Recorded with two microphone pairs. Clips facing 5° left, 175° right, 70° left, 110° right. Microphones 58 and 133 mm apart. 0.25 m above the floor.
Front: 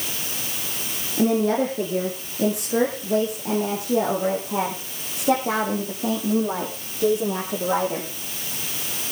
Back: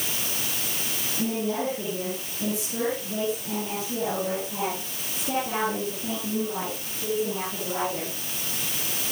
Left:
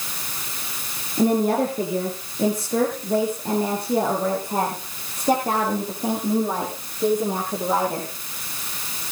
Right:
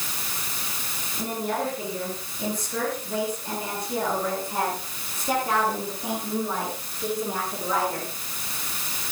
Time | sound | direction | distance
1.2 | a woman speaking | 25° left | 3.5 m